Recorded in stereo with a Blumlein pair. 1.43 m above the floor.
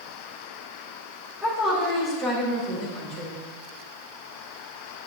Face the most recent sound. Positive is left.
turn(degrees=-35)